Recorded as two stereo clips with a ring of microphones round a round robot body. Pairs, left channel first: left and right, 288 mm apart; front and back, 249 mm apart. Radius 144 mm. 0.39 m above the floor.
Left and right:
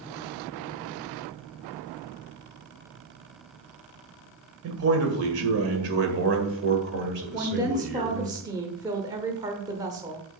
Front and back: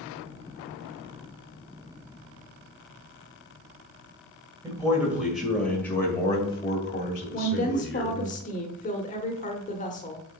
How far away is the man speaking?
About 1.8 m.